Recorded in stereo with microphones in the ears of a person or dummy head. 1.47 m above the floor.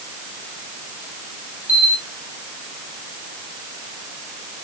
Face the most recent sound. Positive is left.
turn(degrees=15)  # may be behind; listen again after turning